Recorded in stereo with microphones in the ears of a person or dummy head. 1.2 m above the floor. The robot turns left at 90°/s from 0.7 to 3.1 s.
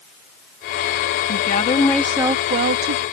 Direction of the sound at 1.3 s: 65° left.